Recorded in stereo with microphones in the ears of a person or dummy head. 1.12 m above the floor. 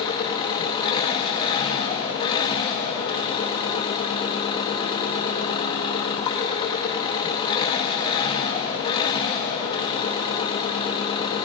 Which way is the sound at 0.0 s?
25° left (ahead or behind).